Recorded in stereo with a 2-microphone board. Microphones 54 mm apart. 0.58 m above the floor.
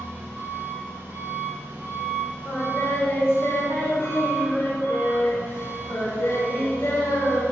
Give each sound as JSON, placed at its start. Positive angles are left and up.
{"t": 0.0, "sound": "an engine running", "side_deg": -35, "distance_m": 2.5}
{"t": 2.5, "sound": "singing", "side_deg": 50, "distance_m": 1.8}